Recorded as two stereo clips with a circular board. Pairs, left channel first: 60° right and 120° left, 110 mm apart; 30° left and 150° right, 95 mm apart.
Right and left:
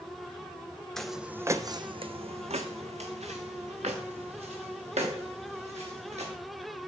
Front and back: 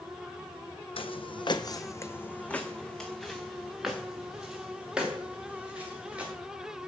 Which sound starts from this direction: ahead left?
Footsteps, at 1.0 s.